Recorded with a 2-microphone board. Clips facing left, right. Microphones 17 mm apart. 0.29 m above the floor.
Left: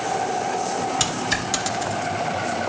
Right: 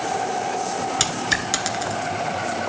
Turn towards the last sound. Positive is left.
turn(degrees=-15)  # may be behind; listen again after turning